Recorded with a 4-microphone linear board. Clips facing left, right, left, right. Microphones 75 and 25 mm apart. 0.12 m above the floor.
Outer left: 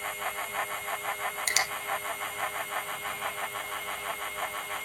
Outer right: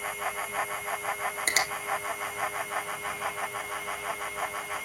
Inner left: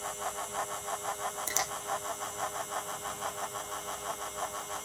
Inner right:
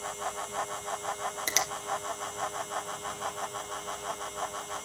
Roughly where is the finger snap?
Right.